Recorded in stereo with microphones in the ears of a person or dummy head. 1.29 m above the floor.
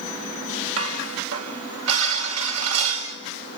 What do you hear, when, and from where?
0.8 s dishes clattering: 80° right, 4.5 m